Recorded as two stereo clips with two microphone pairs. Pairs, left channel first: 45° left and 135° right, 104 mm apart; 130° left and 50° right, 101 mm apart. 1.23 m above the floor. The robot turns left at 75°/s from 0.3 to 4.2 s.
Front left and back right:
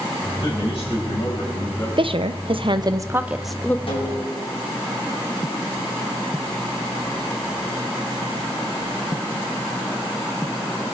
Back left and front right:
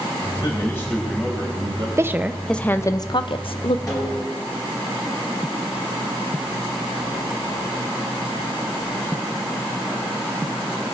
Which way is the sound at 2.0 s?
110° right.